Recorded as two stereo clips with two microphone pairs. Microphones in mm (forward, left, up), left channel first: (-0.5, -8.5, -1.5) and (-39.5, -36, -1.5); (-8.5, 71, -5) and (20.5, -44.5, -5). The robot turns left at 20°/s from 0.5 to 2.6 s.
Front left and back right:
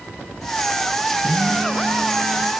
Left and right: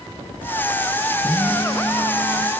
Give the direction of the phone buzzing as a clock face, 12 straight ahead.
6 o'clock.